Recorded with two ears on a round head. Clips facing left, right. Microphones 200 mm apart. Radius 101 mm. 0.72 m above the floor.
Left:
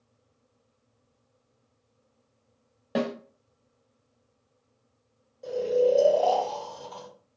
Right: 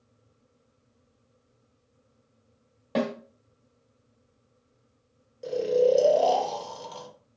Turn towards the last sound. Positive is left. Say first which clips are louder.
# right 1 dB
turn(degrees=-35)  # may be behind; listen again after turning